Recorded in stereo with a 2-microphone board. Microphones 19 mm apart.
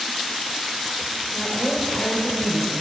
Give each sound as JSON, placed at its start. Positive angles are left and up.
{"t": 1.4, "sound": "a woman speaking", "side_deg": 75, "distance_m": 4.0}